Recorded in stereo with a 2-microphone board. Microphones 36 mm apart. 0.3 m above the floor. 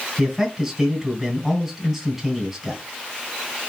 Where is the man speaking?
5° right (ahead or behind), 2.5 m.